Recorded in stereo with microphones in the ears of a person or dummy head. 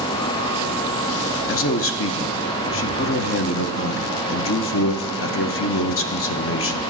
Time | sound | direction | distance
1.5 | a man speaking | 65° left (ahead or behind) | 0.8 m